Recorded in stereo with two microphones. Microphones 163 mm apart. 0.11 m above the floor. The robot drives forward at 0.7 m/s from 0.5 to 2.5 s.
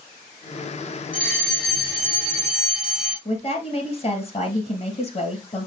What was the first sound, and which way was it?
A fire alarm, 5° right (ahead or behind).